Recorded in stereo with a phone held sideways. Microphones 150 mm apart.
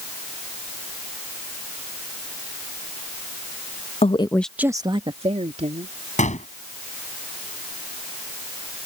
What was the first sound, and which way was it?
A woman speaking, 50° left (ahead or behind).